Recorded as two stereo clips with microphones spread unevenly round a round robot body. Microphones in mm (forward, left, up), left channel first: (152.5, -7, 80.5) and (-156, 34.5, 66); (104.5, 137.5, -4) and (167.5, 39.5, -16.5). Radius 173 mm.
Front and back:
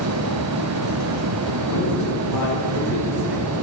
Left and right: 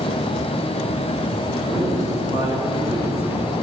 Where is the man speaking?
145° left, 6.5 m.